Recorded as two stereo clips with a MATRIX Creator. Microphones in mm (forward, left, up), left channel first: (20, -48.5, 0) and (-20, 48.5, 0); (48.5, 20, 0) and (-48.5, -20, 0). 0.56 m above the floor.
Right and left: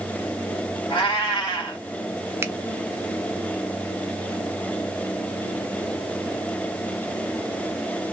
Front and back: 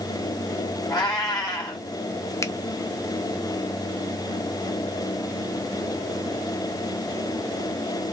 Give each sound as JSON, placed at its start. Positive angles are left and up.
{"t": 0.9, "sound": "a cat meowing", "azimuth_deg": -30, "distance_m": 1.7}
{"t": 2.4, "sound": "a finger snap", "azimuth_deg": 60, "distance_m": 0.5}